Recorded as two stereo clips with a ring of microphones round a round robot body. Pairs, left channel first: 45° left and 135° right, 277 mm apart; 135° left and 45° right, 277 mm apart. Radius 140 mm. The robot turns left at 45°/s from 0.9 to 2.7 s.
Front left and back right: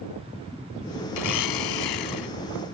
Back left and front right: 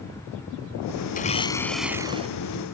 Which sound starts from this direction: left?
A blender, at 1.1 s.